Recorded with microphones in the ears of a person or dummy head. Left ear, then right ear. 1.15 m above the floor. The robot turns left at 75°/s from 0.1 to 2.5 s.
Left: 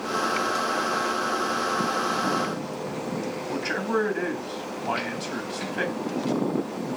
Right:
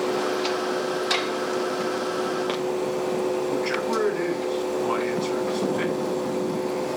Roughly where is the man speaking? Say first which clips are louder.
Right 2 dB; left.